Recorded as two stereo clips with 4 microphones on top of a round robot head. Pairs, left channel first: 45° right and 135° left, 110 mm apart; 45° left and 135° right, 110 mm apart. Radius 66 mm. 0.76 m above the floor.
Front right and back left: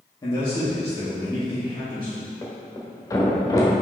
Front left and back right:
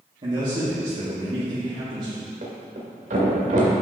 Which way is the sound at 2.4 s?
105° right.